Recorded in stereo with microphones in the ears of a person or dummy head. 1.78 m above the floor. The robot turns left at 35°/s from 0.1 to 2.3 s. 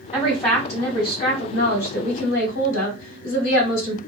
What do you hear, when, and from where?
0.1 s a woman speaking: 165° left, 1.7 m; by 4.0 s 90° left, 1.7 m